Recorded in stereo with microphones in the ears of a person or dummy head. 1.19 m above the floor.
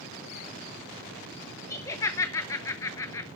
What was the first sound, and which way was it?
Laughter, 20° left (ahead or behind).